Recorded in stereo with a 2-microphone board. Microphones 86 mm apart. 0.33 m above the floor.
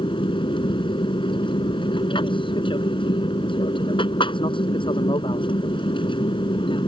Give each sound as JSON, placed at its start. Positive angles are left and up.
{"t": 0.0, "sound": "an aircraft", "side_deg": 70}